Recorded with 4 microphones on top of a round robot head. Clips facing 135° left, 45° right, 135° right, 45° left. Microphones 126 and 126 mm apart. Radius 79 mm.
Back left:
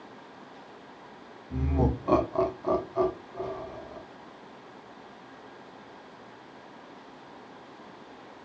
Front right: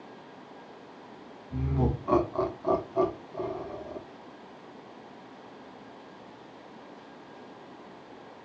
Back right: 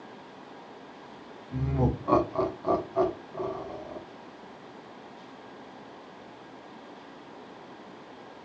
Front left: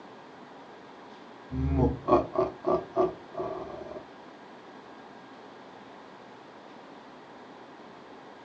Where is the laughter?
115° left, 1.1 m; by 4.0 s 50° right, 1.1 m.